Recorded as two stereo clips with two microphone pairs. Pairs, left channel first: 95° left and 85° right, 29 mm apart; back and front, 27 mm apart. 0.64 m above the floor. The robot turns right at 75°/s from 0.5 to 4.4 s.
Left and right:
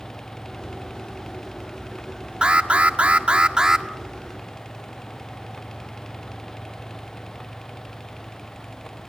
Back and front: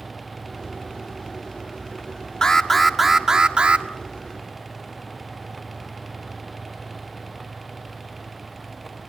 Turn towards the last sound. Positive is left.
turn(degrees=25)